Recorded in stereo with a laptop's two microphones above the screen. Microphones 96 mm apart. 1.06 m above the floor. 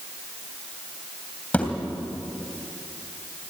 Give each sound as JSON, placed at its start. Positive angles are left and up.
{"t": 1.5, "sound": "a thud", "side_deg": 15, "distance_m": 3.0}